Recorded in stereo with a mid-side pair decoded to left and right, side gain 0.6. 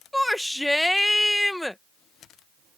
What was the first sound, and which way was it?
A shout, 5° left.